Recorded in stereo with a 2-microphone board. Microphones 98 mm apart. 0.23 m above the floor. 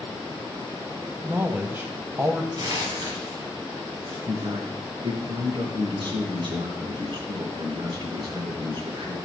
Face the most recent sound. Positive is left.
turn(degrees=-55)  # may be behind; listen again after turning